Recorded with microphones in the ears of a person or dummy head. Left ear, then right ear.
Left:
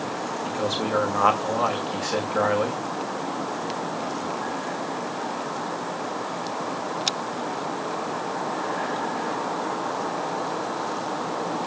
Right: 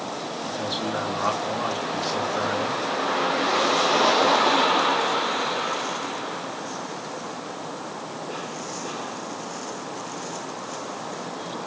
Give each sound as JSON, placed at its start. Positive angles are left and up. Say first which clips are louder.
{"t": 0.5, "sound": "a man speaking", "louder": "left 2 dB", "side_deg": 35, "distance_m": 2.5}